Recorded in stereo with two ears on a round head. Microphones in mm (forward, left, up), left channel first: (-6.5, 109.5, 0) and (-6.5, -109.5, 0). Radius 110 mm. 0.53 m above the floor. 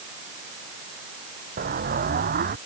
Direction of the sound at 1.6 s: 35° right (ahead or behind).